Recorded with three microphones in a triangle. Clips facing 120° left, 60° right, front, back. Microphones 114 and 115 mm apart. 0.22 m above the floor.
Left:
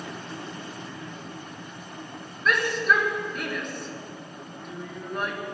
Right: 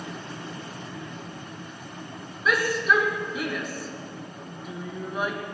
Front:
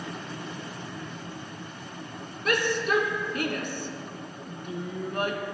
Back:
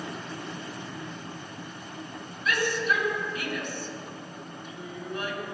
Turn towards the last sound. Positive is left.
turn(degrees=25)